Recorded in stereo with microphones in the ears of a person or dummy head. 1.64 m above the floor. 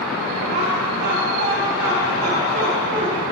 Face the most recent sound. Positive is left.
turn(degrees=-45)  # may be behind; listen again after turning